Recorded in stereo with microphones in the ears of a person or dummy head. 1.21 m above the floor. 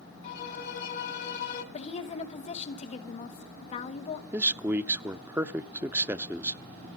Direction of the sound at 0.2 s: 55° left (ahead or behind).